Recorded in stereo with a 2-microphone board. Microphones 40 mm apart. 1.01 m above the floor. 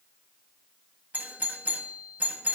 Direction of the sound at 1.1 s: 45° right (ahead or behind).